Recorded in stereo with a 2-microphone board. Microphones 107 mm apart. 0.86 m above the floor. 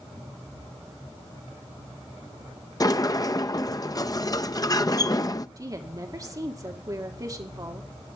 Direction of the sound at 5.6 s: 35° right (ahead or behind).